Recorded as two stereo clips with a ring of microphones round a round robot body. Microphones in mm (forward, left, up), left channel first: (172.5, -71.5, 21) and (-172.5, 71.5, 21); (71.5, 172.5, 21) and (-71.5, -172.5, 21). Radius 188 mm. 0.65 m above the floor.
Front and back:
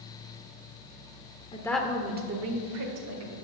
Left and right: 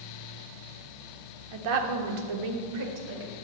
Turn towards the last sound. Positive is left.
turn(degrees=-170)